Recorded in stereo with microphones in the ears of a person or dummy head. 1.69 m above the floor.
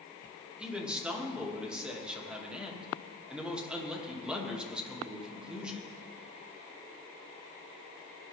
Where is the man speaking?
Centre (ahead or behind), 2.5 m.